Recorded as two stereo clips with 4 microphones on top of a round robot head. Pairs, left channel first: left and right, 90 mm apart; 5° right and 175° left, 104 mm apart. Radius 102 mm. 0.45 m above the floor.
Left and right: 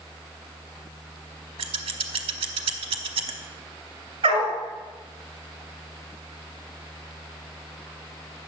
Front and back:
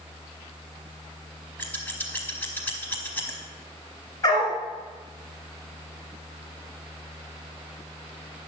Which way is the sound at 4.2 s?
65° right.